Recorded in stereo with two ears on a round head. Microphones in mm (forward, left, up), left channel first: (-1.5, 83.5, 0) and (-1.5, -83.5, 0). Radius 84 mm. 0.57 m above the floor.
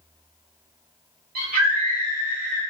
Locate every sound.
1.4 s a scream: 50° right (ahead or behind), 1.5 m